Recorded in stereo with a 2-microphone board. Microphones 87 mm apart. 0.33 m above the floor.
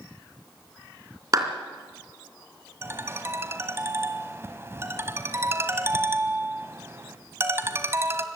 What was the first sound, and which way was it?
A clap, 40° right (ahead or behind).